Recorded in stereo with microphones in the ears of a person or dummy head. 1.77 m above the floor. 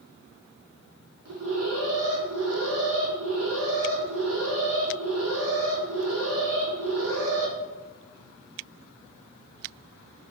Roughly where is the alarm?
Right.